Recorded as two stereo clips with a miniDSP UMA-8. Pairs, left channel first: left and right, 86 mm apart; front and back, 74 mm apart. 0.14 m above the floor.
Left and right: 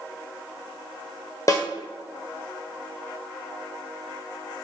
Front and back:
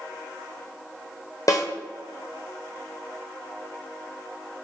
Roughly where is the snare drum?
Ahead left.